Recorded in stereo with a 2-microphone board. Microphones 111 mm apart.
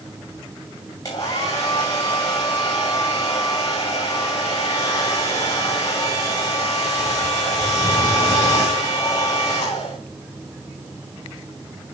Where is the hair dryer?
35° left (ahead or behind), 6 m.